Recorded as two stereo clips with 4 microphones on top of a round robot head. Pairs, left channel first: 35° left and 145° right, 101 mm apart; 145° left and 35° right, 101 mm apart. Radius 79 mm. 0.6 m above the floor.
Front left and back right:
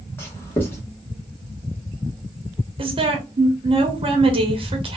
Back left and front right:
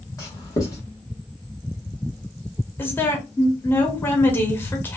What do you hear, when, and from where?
0.2 s writing: 95° left, 1.5 m
2.8 s a woman speaking: 150° right, 1.1 m